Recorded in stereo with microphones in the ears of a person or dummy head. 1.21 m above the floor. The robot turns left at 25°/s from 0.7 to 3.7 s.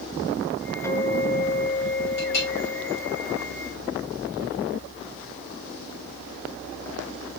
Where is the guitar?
165° left, 0.8 m; by 3.2 s 110° left, 0.8 m.